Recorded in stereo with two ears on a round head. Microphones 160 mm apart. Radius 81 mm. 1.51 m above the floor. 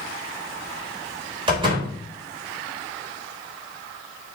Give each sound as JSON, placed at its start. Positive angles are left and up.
{"t": 1.5, "sound": "a door slam", "side_deg": -30, "distance_m": 4.0}